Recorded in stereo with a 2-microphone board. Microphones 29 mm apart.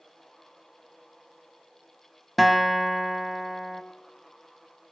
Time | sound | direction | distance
2.4 | a guitar | centre (ahead or behind) | 1.0 m